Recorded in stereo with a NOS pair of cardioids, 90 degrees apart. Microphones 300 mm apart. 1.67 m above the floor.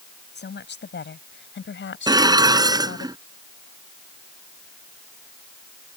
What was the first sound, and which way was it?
A woman speaking, 35° left.